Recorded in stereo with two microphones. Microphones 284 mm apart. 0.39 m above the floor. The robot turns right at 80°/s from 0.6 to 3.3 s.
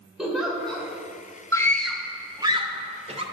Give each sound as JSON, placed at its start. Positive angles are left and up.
{"t": 0.2, "sound": "a giggle", "side_deg": 0, "distance_m": 1.7}
{"t": 1.5, "sound": "a scream", "side_deg": 10, "distance_m": 0.8}